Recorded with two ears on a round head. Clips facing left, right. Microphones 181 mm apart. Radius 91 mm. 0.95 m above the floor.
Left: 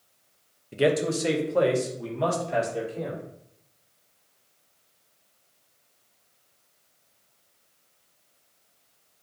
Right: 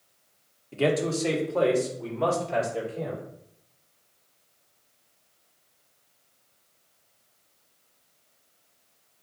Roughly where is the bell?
No bell in this recording.